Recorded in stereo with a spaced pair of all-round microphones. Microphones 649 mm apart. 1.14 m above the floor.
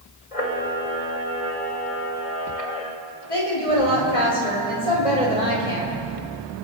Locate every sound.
0.3 s a camera shutter: 60° left (ahead or behind), 1.9 m
3.3 s a woman speaking: 80° left, 5 m